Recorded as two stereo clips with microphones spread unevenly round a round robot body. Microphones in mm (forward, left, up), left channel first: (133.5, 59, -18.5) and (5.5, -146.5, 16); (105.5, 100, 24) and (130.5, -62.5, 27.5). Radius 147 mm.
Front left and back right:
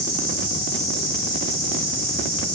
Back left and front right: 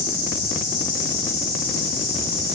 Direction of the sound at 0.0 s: 175° right.